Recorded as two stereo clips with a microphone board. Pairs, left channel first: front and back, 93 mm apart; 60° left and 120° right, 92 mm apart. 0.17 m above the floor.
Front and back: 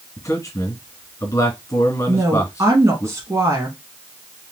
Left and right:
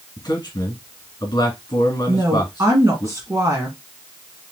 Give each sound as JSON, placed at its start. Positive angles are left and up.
{"t": 0.2, "sound": "a man speaking", "azimuth_deg": 40, "distance_m": 2.5}
{"t": 2.1, "sound": "a woman speaking", "azimuth_deg": -155, "distance_m": 1.3}